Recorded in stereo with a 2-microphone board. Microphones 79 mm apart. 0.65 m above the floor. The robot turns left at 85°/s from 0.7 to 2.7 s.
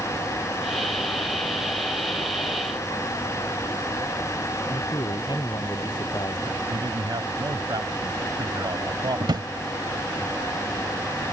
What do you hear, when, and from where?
4.7 s a man speaking: 60° left (ahead or behind)
6.7 s a man speaking: 65° right (ahead or behind)
9.2 s a drawer: 70° right (ahead or behind)